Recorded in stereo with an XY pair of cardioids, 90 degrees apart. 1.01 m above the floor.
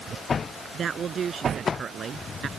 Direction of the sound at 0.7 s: 50° right.